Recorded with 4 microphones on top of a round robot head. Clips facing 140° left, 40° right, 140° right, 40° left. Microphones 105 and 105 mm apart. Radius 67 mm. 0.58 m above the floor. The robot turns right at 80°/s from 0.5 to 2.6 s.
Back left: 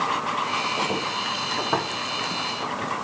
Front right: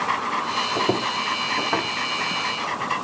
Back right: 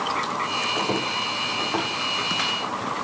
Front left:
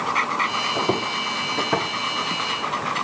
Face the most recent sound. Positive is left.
turn(degrees=140)